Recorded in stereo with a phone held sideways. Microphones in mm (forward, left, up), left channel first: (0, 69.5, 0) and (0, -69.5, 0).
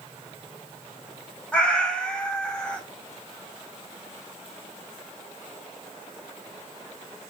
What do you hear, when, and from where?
1.5 s a cat meowing: 10° left (ahead or behind), 0.9 m